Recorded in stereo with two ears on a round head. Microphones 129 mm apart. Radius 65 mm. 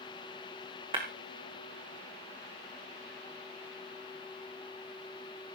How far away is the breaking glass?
About 3.5 m.